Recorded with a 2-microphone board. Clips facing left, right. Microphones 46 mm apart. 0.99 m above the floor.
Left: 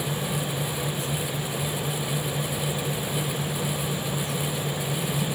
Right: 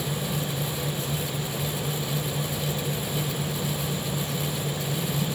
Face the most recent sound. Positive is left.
No sound to turn to.